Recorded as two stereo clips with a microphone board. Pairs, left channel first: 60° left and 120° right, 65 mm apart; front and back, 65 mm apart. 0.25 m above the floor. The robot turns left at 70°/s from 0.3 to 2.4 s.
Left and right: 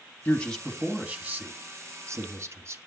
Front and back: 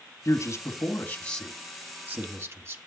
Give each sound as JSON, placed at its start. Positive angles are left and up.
{"t": 0.2, "sound": "a man speaking", "azimuth_deg": 0, "distance_m": 2.0}